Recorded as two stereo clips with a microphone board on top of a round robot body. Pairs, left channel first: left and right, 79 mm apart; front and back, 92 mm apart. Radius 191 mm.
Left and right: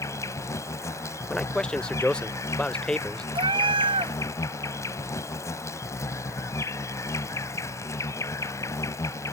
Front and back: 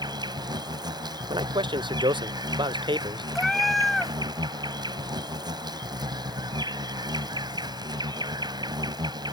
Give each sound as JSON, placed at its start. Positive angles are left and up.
{"t": 0.0, "sound": "an insect", "azimuth_deg": 140}
{"t": 1.3, "sound": "a man speaking", "azimuth_deg": 165}
{"t": 3.4, "sound": "a cat meowing", "azimuth_deg": -90}